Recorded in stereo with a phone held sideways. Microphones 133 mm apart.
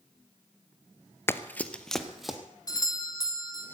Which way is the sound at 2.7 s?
30° left (ahead or behind).